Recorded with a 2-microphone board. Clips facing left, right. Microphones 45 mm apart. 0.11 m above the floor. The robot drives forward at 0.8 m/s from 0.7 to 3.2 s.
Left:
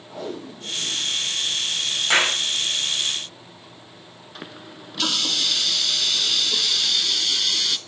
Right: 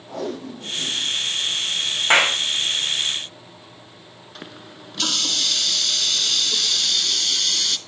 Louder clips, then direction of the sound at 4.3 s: Left 1 dB; 5° left (ahead or behind).